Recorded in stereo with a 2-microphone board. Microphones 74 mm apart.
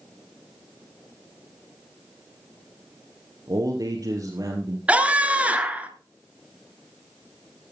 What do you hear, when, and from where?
3.5 s a man speaking: 55° right (ahead or behind), 2 m
4.9 s a scream: 15° right (ahead or behind), 2.0 m